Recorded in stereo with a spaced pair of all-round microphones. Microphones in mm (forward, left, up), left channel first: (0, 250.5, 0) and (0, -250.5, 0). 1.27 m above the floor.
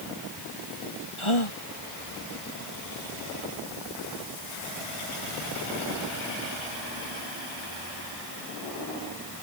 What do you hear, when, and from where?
1.2 s a gasp: 65° left (ahead or behind)